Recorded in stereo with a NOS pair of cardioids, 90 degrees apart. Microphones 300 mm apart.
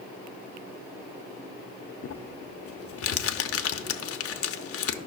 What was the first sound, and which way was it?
Crumpling, 55° left.